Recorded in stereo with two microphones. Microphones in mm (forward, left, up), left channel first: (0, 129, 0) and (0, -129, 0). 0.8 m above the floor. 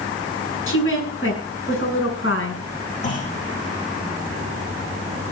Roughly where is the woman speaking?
Left.